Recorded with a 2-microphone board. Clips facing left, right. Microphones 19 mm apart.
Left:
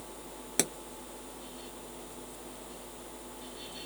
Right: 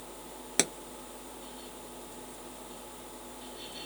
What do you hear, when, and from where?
0.6 s a pop: 20° right (ahead or behind)